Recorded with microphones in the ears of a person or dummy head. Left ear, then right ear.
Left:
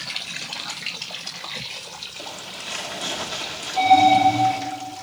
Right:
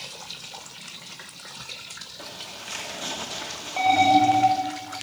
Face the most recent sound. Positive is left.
turn(degrees=-85)